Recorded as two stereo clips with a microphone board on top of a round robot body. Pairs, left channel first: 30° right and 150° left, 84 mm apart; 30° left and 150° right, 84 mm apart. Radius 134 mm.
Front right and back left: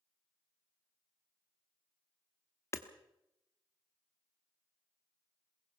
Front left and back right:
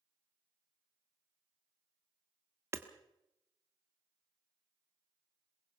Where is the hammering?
90° right, 1.3 m.